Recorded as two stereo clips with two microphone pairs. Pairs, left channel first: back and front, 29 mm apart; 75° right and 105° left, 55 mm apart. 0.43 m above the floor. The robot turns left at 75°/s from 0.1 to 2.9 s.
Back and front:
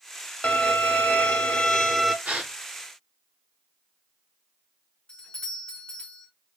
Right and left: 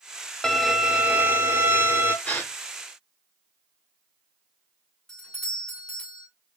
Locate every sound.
0.4 s a violin: 155° right, 0.7 m; by 2.1 s 80° left, 0.7 m
2.2 s a gasp: 15° right, 1.7 m; by 2.5 s 35° right, 1.7 m
5.1 s a doorbell: 150° right, 1.5 m